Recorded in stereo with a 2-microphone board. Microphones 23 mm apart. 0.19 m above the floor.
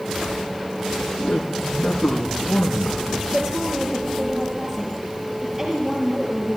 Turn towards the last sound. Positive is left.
turn(degrees=-20)  # may be behind; listen again after turning